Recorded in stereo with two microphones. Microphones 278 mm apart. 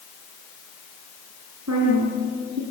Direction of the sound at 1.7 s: 80° right.